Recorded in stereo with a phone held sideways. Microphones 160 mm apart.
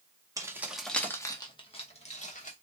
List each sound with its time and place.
0.4 s keys jangling: 20° right (ahead or behind), 0.8 m; by 2.5 s 50° left (ahead or behind), 1.3 m